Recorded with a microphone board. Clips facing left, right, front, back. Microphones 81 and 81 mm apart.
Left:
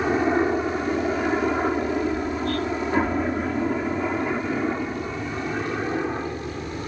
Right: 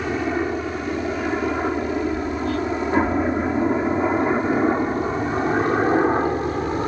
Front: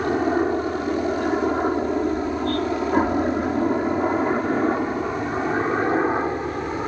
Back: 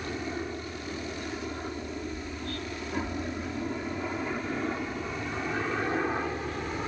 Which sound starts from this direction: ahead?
A helicopter, at 0.0 s.